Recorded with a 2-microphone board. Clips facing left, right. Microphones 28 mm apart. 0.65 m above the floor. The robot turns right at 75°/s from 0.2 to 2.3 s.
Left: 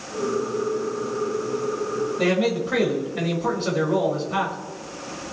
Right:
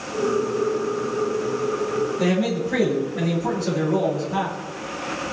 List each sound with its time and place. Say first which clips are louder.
2.2 s a man speaking: left 3 dB; 40° left (ahead or behind), 5.5 m; by 4.5 s 45° left (ahead or behind), 5.5 m